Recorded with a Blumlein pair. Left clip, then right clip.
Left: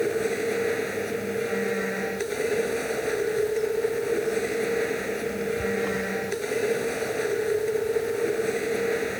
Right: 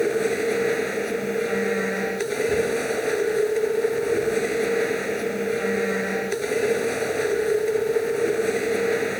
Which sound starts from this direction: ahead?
A machine running, at 0.0 s.